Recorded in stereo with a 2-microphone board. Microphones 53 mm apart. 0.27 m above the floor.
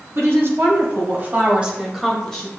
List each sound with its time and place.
0.1 s a woman speaking: 60° right (ahead or behind), 2.0 m; by 2.5 s 20° left (ahead or behind), 1.2 m